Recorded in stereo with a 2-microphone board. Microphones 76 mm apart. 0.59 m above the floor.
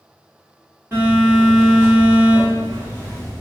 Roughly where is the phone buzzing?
Right.